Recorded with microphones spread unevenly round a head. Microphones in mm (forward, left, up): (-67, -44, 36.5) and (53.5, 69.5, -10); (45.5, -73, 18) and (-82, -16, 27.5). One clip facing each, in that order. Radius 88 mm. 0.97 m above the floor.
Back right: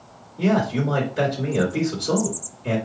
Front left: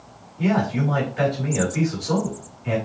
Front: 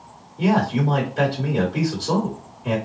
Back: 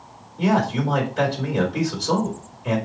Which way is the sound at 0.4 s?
105° right.